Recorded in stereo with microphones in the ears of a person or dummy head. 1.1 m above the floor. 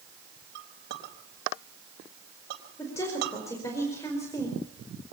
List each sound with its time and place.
0.6 s a clink: 65° right (ahead or behind), 4 m
2.8 s a woman speaking: 15° left (ahead or behind), 4.5 m